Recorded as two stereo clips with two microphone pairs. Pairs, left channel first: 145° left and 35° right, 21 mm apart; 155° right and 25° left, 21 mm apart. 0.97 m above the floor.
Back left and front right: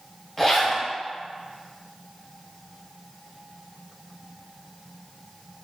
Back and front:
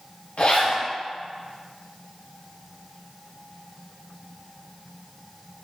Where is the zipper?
140° right, 0.8 m.